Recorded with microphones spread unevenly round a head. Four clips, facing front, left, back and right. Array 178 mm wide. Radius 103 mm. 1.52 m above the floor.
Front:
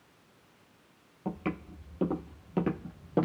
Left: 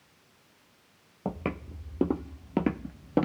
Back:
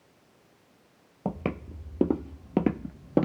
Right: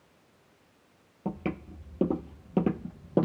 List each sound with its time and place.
1.2 s footsteps: 155° left, 2 m; by 3.3 s 140° left, 1.6 m